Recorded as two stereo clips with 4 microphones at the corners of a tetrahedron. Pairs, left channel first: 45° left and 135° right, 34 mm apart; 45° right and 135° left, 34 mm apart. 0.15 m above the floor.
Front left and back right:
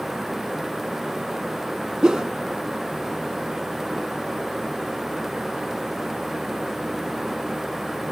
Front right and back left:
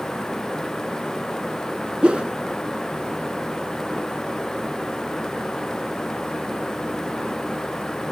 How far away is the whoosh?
About 0.6 m.